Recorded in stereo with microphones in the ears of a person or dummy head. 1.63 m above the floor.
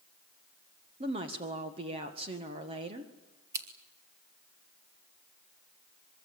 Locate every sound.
1.0 s a woman speaking: 25° right (ahead or behind), 1.6 m
3.5 s scissors: 15° right (ahead or behind), 2 m